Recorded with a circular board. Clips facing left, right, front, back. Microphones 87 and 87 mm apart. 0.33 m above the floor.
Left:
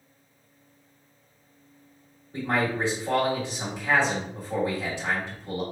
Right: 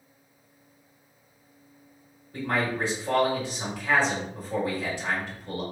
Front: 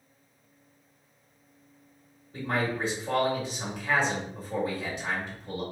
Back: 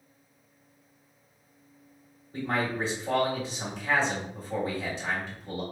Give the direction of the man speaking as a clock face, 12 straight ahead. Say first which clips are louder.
Left 1 dB, even; 7 o'clock.